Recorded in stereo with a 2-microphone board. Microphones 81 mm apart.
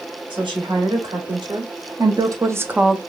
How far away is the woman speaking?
About 2.5 m.